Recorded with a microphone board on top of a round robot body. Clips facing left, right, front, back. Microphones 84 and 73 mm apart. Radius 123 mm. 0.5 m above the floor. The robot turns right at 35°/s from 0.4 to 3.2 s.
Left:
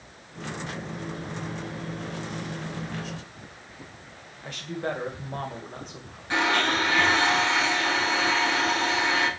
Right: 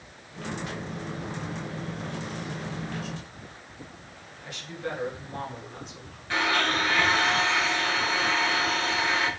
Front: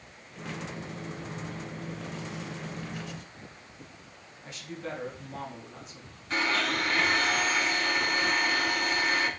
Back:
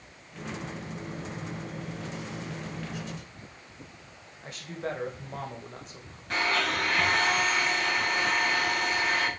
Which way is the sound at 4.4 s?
135° left.